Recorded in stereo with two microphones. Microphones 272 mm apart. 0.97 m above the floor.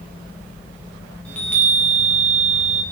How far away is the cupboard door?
I don't hear a cupboard door.